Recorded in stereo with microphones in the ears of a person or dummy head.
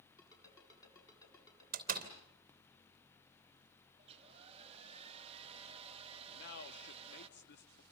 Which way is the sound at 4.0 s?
25° right (ahead or behind).